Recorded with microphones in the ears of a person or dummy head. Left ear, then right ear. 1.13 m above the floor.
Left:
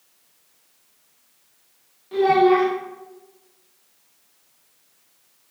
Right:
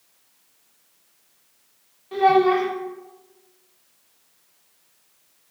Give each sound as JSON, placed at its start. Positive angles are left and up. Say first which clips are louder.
{"t": 2.1, "sound": "a child speaking", "louder": "left 1 dB", "side_deg": -10, "distance_m": 0.5}